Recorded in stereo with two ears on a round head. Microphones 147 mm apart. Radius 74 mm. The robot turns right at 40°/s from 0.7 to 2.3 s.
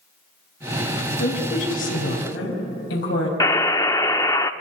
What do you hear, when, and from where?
1.2 s a woman speaking: 30° left, 5 m; by 3.3 s 75° left, 5 m
3.4 s a buzzer: 20° left (ahead or behind), 0.6 m